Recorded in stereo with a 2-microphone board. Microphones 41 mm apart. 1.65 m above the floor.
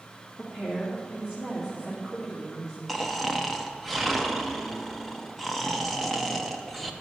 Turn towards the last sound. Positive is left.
turn(degrees=5)  # may be behind; listen again after turning